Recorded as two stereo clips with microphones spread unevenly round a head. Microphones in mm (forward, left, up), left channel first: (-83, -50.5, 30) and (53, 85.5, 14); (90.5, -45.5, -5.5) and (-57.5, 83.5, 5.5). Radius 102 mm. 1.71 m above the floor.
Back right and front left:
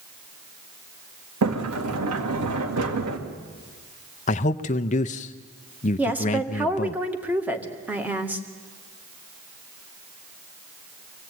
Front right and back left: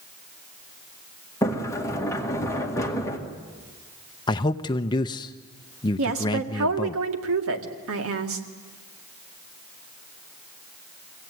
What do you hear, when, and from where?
1.4 s a sliding door: 35° left, 2 m
4.3 s a man speaking: 105° right, 0.5 m
6.0 s a woman speaking: 125° left, 2 m